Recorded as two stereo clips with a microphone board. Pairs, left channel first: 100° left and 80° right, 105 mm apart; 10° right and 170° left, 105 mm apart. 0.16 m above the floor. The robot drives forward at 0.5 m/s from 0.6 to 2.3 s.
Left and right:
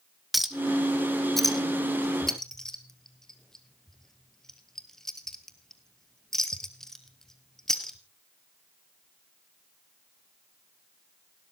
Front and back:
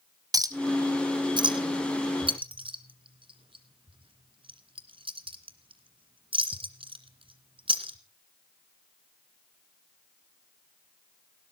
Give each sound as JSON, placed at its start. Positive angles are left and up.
{"t": 0.3, "sound": "a clink", "azimuth_deg": -165, "distance_m": 1.2}